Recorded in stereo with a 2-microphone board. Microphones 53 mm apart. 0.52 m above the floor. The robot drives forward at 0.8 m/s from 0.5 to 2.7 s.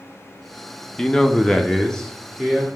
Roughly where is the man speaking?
Centre.